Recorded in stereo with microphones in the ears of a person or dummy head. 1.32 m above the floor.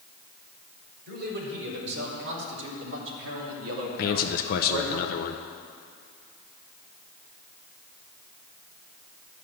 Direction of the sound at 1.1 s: 55° right (ahead or behind).